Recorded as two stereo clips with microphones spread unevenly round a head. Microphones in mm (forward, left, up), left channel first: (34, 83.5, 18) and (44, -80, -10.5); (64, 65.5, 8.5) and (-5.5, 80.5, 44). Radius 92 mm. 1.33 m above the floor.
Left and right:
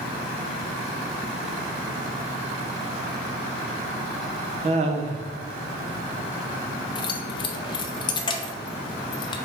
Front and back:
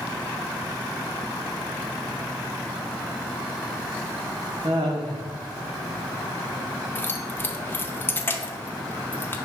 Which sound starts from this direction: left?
Keys jangling, at 7.0 s.